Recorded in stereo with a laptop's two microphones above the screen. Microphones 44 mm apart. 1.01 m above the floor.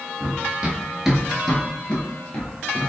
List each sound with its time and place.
0.2 s running footsteps: 40° right (ahead or behind), 1.2 m; by 2.9 s 50° left (ahead or behind), 1.4 m